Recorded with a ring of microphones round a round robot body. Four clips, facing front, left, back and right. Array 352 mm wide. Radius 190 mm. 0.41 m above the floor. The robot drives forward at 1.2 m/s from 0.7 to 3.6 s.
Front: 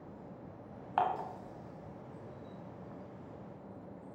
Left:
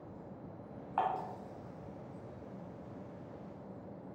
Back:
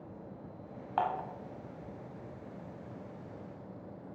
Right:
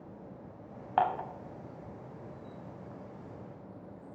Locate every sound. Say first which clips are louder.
1.0 s dishes clattering: right 5 dB, even; 85° right, 2 m; by 1.3 s 95° right, 2 m